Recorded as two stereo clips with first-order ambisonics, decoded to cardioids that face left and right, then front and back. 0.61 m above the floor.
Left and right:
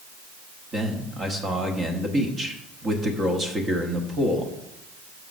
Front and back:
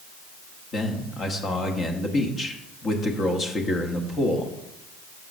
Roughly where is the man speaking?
Ahead right.